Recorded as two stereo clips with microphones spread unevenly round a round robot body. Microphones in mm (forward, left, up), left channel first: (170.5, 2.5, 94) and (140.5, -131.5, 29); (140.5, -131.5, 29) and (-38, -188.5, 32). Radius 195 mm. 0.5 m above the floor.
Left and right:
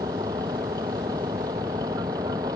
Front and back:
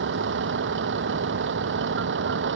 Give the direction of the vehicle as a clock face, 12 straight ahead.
6 o'clock.